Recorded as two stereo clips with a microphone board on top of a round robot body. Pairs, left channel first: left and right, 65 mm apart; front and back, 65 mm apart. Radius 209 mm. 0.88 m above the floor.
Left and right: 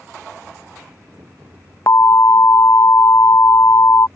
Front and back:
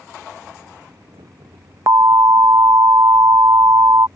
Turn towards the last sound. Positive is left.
turn(degrees=135)